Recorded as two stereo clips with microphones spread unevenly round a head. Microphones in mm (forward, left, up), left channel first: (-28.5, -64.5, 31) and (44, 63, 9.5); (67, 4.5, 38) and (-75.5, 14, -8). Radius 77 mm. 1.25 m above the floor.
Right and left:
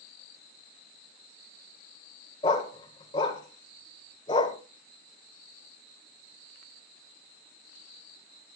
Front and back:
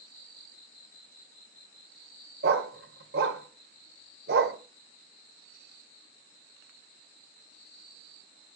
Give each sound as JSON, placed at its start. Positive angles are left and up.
{"t": 2.4, "sound": "a dog barking", "azimuth_deg": -160, "distance_m": 1.4}